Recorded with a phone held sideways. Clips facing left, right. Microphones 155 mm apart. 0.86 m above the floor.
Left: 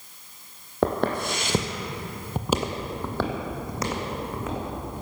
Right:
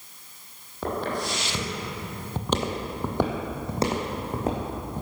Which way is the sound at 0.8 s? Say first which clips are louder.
Left 5 dB; 70° left (ahead or behind).